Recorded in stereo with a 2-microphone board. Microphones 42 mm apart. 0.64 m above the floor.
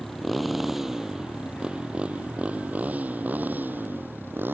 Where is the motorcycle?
5° left (ahead or behind); by 4.5 s 50° right (ahead or behind).